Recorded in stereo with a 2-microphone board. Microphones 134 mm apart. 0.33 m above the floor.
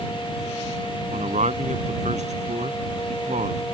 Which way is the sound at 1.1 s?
65° right (ahead or behind).